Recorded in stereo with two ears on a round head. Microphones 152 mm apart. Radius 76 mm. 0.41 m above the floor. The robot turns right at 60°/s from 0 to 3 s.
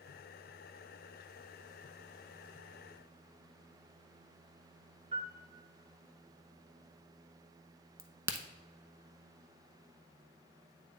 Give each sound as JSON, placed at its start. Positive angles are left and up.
{"t": 5.1, "sound": "a piano", "side_deg": -40, "distance_m": 1.3}
{"t": 8.0, "sound": "a crack", "side_deg": -15, "distance_m": 0.6}